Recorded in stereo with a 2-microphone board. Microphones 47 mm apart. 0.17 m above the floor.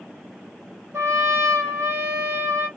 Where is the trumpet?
75° right (ahead or behind), 1.0 m.